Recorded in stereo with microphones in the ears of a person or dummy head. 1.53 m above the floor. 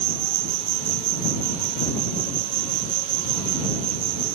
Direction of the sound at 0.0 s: 70° right (ahead or behind).